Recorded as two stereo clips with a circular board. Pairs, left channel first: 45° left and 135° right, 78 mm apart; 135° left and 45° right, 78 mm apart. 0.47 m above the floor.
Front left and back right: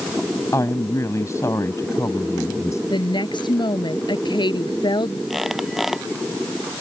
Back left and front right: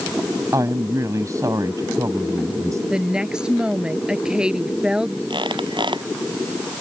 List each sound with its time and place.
0.5 s a woman speaking: 5° right
2.9 s a woman speaking: 35° left
5.3 s a squeak: 50° right